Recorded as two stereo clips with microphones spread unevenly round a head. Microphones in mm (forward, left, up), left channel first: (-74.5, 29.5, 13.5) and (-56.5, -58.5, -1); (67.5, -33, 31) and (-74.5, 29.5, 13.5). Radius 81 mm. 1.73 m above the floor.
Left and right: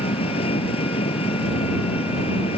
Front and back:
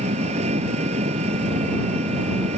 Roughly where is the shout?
No shout in this recording.